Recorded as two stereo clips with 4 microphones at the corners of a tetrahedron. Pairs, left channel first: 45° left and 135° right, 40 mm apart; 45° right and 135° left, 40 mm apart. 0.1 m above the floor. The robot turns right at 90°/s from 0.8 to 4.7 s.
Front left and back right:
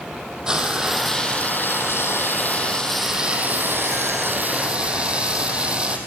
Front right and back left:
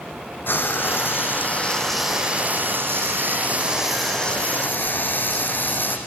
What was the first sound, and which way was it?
Frying, 60° right.